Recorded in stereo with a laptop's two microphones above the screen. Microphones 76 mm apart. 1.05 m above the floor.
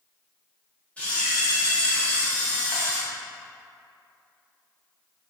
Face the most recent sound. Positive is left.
turn(degrees=15)  # may be behind; listen again after turning